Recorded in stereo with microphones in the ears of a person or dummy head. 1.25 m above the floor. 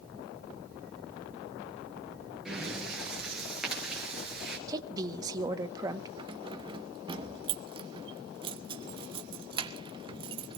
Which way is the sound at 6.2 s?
25° right (ahead or behind).